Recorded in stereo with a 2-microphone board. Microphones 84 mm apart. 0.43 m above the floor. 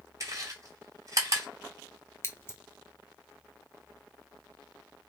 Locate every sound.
0.2 s chewing: 40° right (ahead or behind), 2.5 m
2.2 s scissors: 30° left (ahead or behind), 1.2 m